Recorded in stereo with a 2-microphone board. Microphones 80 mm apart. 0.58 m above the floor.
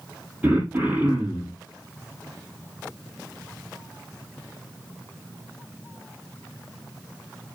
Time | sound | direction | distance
0.4 | throat clearing | 20° right (ahead or behind) | 6.5 m